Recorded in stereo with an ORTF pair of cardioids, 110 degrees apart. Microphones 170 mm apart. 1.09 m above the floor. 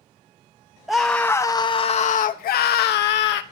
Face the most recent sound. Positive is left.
turn(degrees=80)